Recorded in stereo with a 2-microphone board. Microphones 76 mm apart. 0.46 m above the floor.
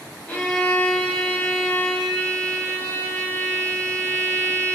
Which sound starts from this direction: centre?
A violin, at 0.3 s.